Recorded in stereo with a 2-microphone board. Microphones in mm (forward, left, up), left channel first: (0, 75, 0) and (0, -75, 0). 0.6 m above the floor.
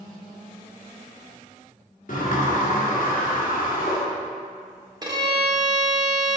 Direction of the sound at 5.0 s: 25° right (ahead or behind).